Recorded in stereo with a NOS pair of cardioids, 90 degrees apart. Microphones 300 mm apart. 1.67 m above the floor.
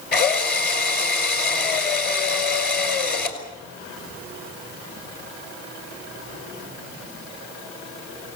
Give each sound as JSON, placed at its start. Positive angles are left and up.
{"t": 0.1, "sound": "a drill", "azimuth_deg": 35, "distance_m": 5.5}